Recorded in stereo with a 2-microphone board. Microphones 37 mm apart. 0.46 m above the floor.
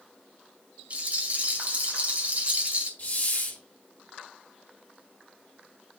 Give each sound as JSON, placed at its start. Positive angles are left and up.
{"t": 0.9, "sound": "a rattle", "side_deg": -40, "distance_m": 2.0}
{"t": 3.0, "sound": "a hiss", "side_deg": 45, "distance_m": 3.0}